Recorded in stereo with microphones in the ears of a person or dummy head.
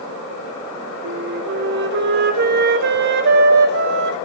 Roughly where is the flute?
Right.